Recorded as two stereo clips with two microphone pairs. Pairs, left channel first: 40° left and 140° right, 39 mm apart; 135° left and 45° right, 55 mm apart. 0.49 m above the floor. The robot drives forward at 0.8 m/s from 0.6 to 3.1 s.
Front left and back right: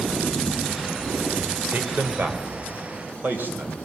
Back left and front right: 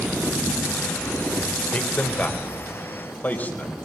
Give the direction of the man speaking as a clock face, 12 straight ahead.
6 o'clock.